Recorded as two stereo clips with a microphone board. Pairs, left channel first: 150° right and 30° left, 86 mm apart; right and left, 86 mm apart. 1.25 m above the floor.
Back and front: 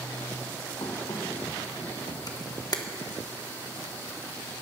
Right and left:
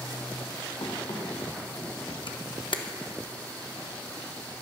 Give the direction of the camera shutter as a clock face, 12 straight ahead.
4 o'clock.